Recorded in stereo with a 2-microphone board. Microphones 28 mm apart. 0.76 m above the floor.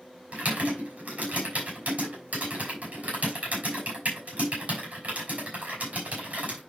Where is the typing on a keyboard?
65° right (ahead or behind), 5 m.